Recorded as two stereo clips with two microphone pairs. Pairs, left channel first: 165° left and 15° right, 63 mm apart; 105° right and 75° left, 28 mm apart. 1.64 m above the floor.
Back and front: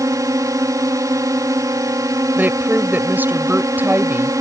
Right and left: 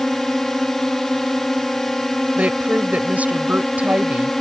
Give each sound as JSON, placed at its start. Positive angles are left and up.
{"t": 0.0, "sound": "a drone", "azimuth_deg": -30}
{"t": 2.4, "sound": "a woman speaking", "azimuth_deg": 45}